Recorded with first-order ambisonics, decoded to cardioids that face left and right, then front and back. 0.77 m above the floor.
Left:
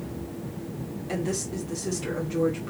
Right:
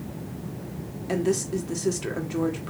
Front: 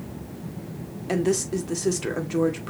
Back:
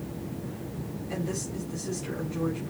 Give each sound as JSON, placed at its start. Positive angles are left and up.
{"t": 1.1, "sound": "a woman speaking", "azimuth_deg": -15, "distance_m": 2.5}